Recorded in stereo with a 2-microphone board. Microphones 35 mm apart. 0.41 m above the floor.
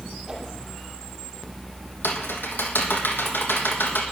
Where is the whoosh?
20° right (ahead or behind), 5.5 m.